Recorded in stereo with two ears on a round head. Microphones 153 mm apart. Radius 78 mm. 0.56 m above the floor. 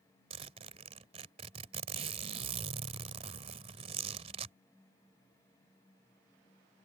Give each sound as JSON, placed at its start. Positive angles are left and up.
{"t": 0.3, "sound": "a zipper", "side_deg": -35}